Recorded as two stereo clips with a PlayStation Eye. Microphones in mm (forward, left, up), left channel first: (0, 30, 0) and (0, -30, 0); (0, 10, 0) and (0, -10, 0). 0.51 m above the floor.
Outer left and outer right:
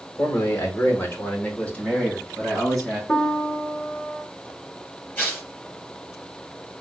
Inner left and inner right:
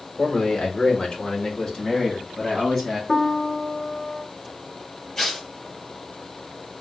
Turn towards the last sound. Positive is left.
turn(degrees=25)  # may be behind; listen again after turning